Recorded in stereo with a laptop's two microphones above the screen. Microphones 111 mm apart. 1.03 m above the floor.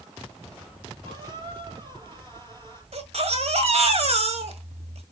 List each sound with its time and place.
1.0 s a squeak: 45° right (ahead or behind), 5.5 m
2.9 s a baby crying: 65° right (ahead or behind), 1.6 m